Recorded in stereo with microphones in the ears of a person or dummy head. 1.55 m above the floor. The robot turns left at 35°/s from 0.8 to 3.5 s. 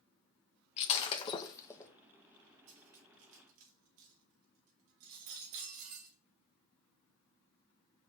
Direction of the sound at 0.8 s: 40° left (ahead or behind).